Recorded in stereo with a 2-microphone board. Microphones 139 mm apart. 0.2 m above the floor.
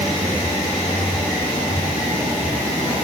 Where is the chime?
I don't hear a chime.